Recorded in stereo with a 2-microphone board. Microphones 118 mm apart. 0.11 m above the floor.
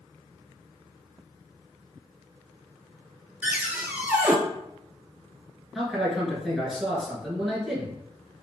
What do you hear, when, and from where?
3.4 s a cupboard door: 15° right (ahead or behind), 0.8 m
5.8 s a man speaking: centre (ahead or behind), 1.6 m